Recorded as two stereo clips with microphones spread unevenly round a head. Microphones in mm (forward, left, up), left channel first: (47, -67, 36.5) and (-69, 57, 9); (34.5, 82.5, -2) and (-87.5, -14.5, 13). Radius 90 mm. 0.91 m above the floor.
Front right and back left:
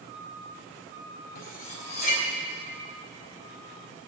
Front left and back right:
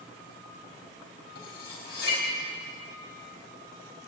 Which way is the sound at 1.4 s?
5° right.